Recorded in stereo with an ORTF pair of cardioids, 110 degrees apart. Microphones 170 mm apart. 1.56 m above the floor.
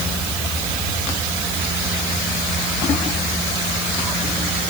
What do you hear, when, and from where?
Only background noise.